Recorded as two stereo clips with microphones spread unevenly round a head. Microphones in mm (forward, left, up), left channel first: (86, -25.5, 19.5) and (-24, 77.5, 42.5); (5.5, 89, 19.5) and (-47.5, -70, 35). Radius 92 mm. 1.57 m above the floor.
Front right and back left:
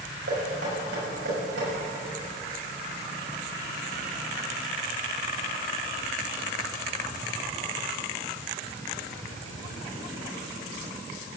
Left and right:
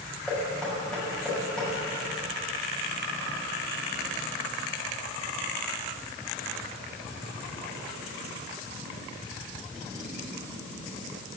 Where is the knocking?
160° left, 6.5 m.